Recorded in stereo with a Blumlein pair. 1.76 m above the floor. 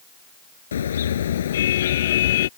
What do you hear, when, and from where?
0.7 s a car horn: 65° left; by 2.5 s 55° left